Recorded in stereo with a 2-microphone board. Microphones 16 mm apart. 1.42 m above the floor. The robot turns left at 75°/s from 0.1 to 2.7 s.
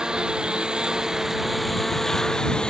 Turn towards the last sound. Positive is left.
turn(degrees=70)  # may be behind; listen again after turning